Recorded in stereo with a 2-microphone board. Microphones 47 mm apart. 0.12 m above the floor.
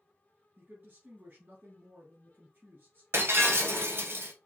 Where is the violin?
No violin in this recording.